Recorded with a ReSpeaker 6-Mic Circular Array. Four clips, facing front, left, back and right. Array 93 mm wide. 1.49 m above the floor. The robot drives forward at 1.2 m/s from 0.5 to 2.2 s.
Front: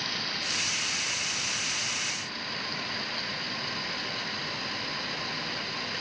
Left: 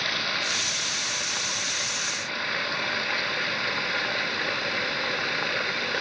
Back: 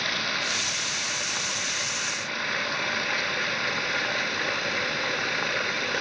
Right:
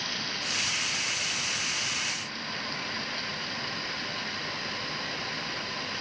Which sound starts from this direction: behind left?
Running water, at 0.0 s.